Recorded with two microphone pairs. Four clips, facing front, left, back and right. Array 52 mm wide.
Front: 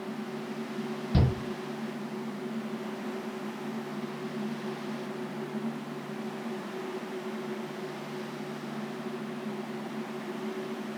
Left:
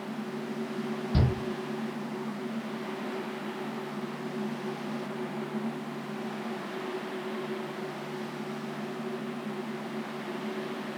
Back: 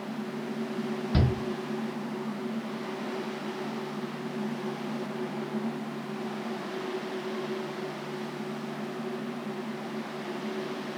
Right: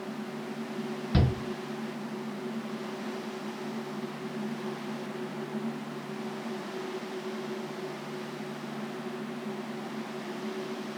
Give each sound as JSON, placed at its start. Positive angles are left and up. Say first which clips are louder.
{"t": 1.1, "sound": "a shout", "louder": "right 1 dB, even", "azimuth_deg": -115, "distance_m": 3.0}